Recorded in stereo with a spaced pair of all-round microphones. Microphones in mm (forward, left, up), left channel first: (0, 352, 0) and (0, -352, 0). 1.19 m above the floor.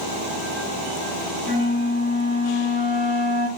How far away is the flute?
About 1.9 m.